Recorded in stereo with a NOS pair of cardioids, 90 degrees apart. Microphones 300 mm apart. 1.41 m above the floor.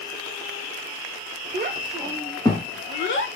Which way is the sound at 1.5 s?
25° right.